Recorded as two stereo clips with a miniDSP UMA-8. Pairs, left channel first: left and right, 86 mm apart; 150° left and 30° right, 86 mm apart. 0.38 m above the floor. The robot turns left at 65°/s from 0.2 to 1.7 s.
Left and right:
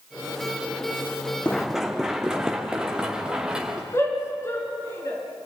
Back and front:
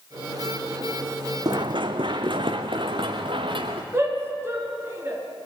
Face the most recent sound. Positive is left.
turn(degrees=30)